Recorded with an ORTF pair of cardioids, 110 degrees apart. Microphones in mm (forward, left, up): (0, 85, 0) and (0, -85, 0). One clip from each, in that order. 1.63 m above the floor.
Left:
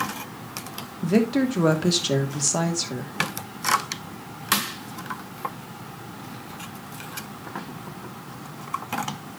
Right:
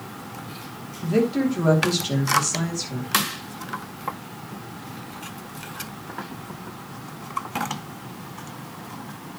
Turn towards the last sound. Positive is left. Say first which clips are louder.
# even
turn(degrees=35)